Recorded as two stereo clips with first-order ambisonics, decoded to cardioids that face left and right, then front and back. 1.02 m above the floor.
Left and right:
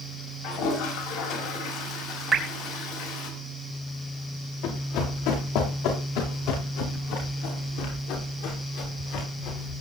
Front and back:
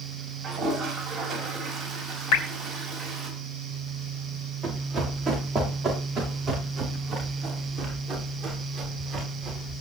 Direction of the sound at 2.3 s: 10° right.